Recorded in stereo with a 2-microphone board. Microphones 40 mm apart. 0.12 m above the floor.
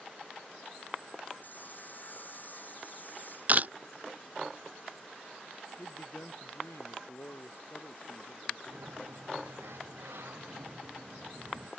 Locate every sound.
1.4 s sawing: 50° left (ahead or behind)
3.5 s a camera shutter: 45° right (ahead or behind)
5.8 s a man speaking: 80° left
8.7 s a sliding door: 85° right